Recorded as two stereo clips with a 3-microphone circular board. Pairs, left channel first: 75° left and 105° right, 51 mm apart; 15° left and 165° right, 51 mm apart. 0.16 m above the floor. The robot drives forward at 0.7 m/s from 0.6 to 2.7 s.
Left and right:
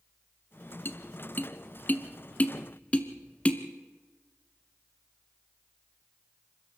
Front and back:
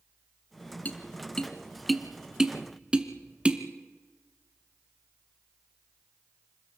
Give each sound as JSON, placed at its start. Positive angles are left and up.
{"t": 0.8, "sound": "tapping", "azimuth_deg": 60, "distance_m": 1.4}